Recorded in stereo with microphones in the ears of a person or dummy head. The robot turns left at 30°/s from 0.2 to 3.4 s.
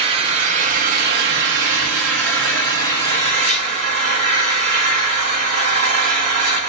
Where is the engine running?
30° right, 3 m; by 6.7 s 130° right, 3 m.